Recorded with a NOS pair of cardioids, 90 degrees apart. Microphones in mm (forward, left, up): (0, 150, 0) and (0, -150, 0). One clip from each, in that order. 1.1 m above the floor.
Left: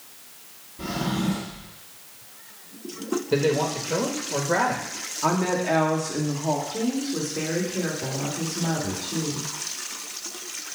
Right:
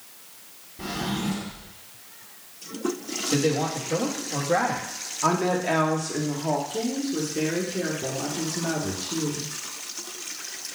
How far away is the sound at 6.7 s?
About 2.5 m.